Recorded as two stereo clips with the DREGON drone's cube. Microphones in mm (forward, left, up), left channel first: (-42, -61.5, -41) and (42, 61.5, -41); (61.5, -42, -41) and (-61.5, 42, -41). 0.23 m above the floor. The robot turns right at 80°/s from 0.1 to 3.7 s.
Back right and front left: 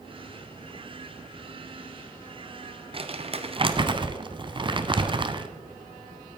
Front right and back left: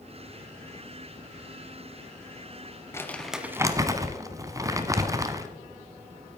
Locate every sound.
2.9 s crumpling: 30° left, 0.9 m; by 5.5 s 90° left, 0.9 m